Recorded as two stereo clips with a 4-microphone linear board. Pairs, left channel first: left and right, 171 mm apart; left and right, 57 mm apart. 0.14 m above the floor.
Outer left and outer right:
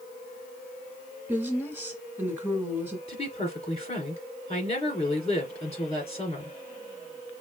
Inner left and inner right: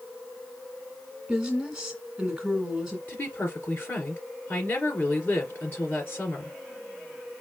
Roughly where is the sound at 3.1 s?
Left.